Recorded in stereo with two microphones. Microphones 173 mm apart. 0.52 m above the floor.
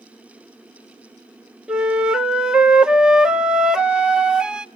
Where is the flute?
5° right (ahead or behind), 0.5 m.